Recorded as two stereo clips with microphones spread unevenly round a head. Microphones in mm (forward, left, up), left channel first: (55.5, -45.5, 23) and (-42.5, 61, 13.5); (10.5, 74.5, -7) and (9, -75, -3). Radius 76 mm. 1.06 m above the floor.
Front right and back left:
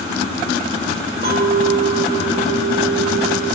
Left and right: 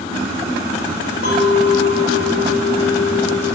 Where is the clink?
105° left, 4 m.